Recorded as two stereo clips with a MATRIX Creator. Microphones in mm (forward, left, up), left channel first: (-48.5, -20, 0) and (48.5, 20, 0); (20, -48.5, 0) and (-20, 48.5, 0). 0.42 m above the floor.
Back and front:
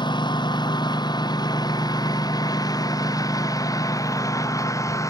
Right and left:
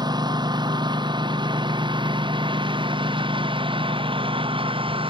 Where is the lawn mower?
160° left; by 5.1 s 145° left.